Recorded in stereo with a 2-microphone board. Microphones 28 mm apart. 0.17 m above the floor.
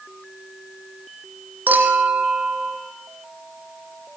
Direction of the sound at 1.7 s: 80° right.